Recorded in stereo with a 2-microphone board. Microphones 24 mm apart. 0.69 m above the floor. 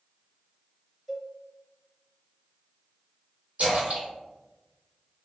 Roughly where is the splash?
Right.